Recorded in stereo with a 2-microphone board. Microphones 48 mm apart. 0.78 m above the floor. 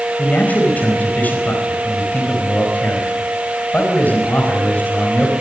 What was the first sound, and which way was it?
A man speaking, 30° left (ahead or behind).